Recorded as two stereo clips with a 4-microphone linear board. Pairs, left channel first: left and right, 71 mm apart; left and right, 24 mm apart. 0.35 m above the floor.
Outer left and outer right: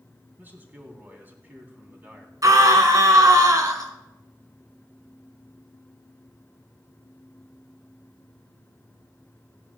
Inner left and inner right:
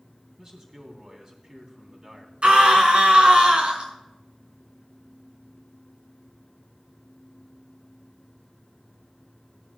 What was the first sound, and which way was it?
A man speaking, 25° right (ahead or behind).